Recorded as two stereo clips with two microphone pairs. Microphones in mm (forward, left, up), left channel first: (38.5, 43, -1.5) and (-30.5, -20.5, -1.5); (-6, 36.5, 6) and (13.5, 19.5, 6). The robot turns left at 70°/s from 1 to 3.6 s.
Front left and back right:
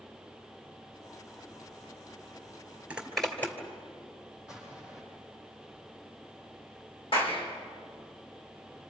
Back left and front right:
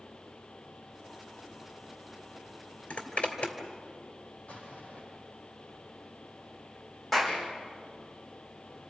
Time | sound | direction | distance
2.9 | a zipper | 150° left | 3 m
4.5 | an explosion | 95° left | 8 m
7.1 | a clap | 55° left | 6 m